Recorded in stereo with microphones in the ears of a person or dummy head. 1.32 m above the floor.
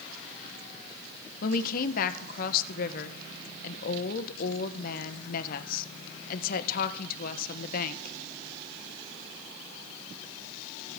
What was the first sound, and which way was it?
A woman speaking, 55° left (ahead or behind).